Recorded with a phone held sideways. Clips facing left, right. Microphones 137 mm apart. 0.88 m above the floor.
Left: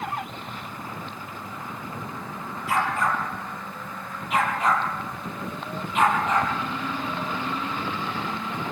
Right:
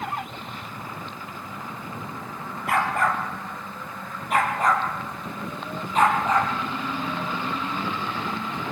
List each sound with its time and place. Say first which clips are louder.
2.7 s a dog barking: right 1 dB; 65° right (ahead or behind), 5.5 m; by 6.5 s 35° right (ahead or behind), 7 m